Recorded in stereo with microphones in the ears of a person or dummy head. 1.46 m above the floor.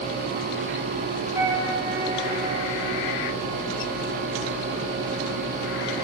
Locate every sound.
1.3 s a flute: 20° right (ahead or behind), 1.3 m